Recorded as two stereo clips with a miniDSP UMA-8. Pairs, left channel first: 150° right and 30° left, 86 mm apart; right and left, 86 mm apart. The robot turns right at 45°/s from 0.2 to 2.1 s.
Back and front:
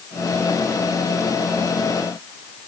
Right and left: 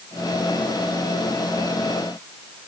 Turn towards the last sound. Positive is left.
No sound to turn to.